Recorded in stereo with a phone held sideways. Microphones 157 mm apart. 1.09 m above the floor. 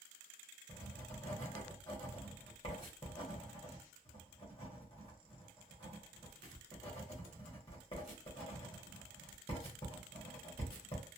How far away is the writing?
About 1.0 m.